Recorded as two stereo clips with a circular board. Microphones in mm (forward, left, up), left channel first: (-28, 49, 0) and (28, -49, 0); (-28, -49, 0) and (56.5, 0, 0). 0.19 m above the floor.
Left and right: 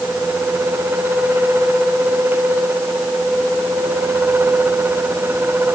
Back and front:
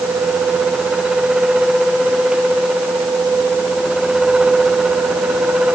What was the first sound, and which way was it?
Only background noise.